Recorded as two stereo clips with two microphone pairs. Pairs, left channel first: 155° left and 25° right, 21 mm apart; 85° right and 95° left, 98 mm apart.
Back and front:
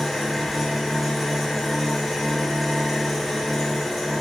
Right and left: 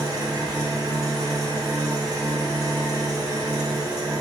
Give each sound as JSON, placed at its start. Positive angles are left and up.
{"t": 0.0, "sound": "an engine running", "azimuth_deg": 75, "distance_m": 0.7}